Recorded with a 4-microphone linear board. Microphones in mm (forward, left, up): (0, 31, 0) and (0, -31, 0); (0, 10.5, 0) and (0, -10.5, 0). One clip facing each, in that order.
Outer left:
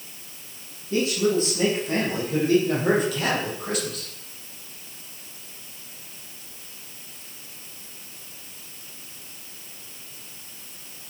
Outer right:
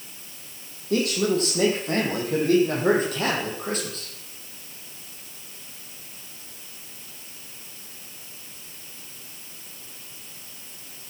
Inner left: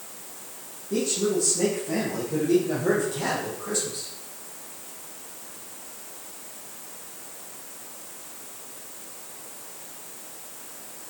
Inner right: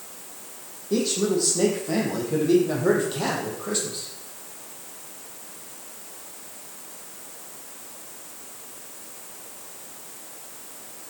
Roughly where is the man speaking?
Right.